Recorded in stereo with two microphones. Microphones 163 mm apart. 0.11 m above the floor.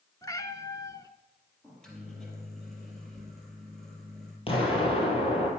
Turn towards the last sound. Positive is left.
turn(degrees=35)  # may be behind; listen again after turning